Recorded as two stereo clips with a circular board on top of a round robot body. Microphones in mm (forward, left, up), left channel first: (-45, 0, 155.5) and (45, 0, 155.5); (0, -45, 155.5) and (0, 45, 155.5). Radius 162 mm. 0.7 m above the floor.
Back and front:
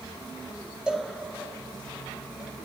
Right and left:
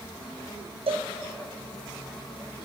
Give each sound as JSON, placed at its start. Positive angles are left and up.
{"t": 0.9, "sound": "a cowbell", "azimuth_deg": 80, "distance_m": 0.7}